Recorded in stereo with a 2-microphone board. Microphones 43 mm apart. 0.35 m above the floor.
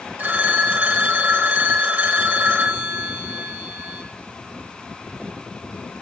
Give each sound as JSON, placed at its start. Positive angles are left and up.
{"t": 0.2, "sound": "a phone ringing", "side_deg": -45, "distance_m": 0.8}